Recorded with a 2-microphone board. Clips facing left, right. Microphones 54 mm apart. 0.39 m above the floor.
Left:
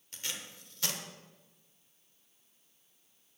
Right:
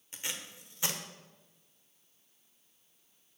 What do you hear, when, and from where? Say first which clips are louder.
0.1 s tape being pulled: right 1 dB; 20° right (ahead or behind), 1.1 m